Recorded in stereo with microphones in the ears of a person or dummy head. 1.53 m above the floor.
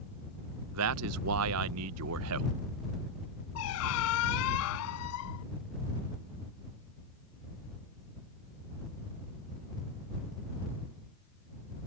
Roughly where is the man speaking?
Right.